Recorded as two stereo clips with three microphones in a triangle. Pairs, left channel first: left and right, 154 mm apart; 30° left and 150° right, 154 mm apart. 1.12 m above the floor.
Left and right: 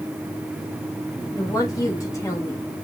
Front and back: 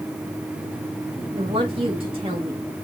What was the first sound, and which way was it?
A woman speaking, 160° left.